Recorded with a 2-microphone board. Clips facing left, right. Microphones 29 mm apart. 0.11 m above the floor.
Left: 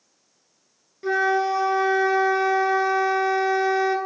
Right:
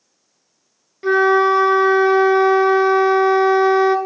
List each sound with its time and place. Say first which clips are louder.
1.0 s a flute: right 7 dB; 30° right (ahead or behind), 0.8 m